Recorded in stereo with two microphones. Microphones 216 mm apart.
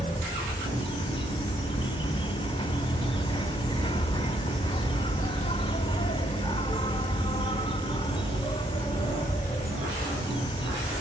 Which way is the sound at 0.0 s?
20° left (ahead or behind).